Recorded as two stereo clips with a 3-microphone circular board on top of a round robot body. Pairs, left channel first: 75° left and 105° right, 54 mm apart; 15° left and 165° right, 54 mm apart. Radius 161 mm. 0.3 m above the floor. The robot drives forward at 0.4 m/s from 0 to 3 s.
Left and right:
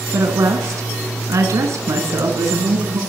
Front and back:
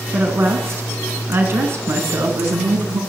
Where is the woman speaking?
115° right, 4 m; by 3.0 s 130° right, 4.5 m.